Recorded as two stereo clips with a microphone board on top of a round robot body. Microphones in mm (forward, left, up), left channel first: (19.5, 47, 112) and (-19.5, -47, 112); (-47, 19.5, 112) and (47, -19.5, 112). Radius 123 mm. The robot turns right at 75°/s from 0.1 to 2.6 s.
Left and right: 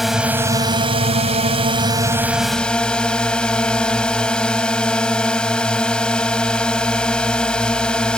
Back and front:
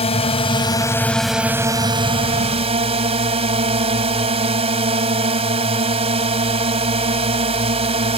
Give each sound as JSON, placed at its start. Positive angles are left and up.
{"t": 0.0, "sound": "a drone", "azimuth_deg": 160}